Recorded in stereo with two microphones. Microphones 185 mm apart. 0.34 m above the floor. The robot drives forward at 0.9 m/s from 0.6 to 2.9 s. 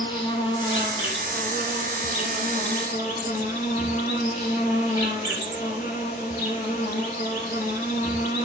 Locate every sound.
0.0 s an insect: 30° left (ahead or behind), 6.5 m; by 8.5 s 40° left (ahead or behind), 5 m